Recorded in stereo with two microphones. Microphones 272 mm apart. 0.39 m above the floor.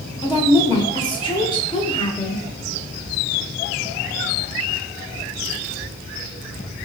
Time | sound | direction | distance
0.2 | a woman speaking | 15° left (ahead or behind) | 0.8 m